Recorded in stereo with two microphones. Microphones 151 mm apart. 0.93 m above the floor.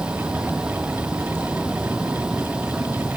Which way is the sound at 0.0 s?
5° right (ahead or behind).